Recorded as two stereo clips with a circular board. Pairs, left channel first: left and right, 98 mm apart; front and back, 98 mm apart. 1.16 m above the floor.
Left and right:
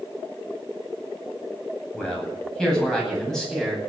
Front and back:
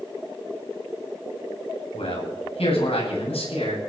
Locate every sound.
1.9 s a man speaking: 10° left, 9 m; by 3.8 s 5° left, 9.5 m